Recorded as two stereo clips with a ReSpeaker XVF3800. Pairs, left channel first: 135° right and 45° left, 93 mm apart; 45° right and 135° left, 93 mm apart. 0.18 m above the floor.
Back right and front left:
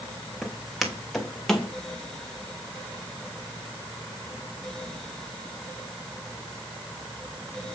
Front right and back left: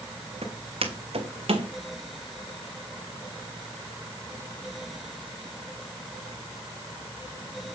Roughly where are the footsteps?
Behind left.